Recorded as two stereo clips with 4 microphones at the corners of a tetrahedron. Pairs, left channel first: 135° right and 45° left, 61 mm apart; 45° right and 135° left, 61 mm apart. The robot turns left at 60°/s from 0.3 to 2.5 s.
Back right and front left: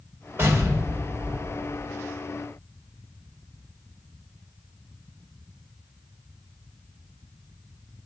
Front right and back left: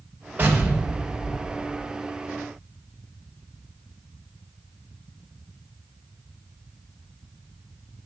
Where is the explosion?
85° left, 2.0 m; by 1.9 s 5° right, 2.0 m.